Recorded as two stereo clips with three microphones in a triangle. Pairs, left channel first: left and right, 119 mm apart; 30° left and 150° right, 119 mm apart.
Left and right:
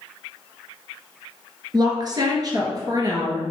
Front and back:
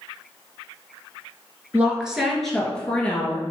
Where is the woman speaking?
80° right, 1.3 m; by 3.4 s 40° right, 1.9 m.